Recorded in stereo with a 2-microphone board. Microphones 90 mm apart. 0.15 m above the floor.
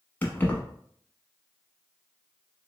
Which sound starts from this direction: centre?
Keys jangling, at 0.2 s.